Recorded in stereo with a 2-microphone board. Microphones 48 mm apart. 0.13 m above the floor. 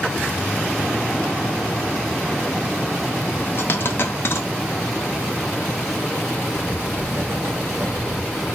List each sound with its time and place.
3.6 s a dropped coin: 55° left (ahead or behind), 0.8 m
6.5 s writing: 45° right (ahead or behind), 0.8 m